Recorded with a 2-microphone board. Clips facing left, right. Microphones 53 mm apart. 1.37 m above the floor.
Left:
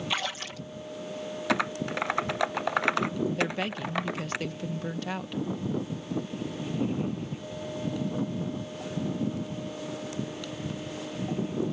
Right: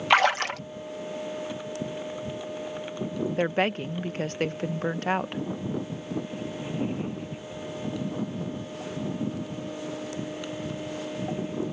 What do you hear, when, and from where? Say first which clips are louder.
0.1 s a splash: right 15 dB; 60° right (ahead or behind)
1.5 s typing on a keyboard: left 5 dB; 85° left
3.4 s a woman speaking: right 4 dB; 45° right (ahead or behind)